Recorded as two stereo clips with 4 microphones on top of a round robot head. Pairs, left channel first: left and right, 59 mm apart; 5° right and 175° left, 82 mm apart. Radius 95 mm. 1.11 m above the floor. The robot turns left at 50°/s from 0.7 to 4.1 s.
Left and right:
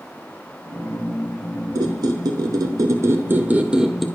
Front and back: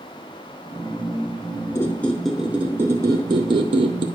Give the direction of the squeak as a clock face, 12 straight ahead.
2 o'clock.